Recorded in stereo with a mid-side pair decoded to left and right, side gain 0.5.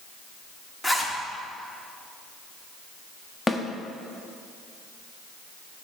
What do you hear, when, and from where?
0.8 s a zipper: 15° left, 1.1 m
3.5 s a snare drum: 15° left, 0.8 m